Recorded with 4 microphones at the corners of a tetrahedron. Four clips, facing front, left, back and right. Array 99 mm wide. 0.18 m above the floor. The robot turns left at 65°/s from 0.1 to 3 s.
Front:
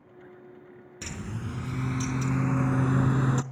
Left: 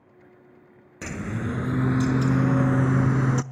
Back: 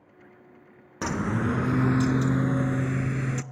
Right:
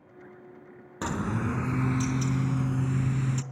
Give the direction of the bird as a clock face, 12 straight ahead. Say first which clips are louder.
Right 1 dB, back 12 dB; 5 o'clock.